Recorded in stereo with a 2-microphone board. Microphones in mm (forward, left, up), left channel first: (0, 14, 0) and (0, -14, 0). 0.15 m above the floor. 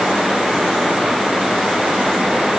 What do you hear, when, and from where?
Only background noise.